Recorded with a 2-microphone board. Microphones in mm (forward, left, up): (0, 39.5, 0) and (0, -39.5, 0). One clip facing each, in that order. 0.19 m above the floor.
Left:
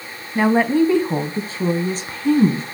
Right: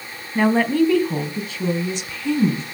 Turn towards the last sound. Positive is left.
turn(degrees=45)  # may be behind; listen again after turning